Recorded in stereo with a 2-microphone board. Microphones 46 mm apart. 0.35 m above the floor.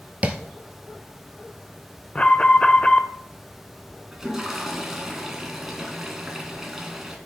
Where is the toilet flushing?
5° right (ahead or behind), 1.8 m.